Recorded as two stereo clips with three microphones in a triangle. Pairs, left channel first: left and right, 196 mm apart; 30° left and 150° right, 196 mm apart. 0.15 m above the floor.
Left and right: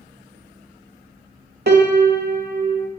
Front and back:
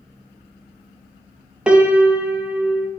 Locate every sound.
1.7 s a piano: 65° right, 0.5 m